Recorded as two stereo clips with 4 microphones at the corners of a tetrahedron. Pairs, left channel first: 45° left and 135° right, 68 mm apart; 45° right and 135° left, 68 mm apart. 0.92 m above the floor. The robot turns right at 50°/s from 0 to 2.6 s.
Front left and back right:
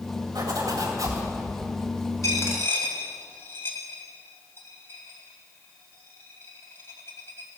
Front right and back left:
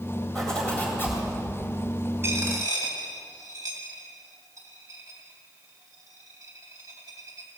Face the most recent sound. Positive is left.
turn(degrees=100)